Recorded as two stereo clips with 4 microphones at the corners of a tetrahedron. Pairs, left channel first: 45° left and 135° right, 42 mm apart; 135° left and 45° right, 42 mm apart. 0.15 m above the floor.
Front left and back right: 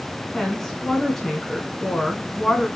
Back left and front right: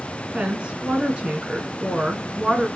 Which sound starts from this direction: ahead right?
A woman speaking, at 0.3 s.